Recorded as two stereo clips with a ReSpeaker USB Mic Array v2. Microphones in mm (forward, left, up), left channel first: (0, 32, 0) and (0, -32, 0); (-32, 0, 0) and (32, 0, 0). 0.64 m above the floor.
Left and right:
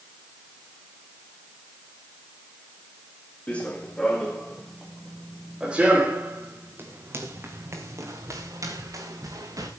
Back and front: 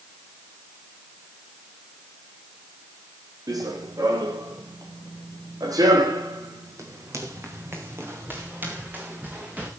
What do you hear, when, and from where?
3.5 s running footsteps: 20° left, 3 m; by 9.7 s 65° right, 4 m